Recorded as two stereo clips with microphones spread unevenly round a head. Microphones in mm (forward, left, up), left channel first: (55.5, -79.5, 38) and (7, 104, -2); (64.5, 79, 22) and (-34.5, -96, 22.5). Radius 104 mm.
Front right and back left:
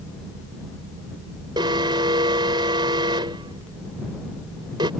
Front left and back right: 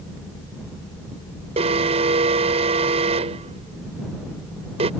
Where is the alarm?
Straight behind.